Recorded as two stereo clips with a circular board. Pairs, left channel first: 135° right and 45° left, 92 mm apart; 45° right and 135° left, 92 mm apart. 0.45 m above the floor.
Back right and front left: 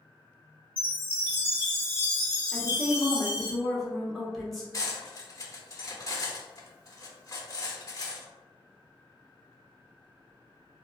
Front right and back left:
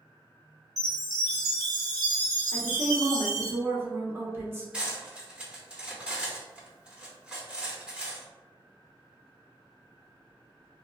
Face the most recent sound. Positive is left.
turn(degrees=-155)